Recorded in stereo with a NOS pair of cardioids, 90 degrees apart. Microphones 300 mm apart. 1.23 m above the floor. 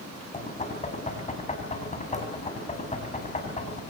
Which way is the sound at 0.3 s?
25° left.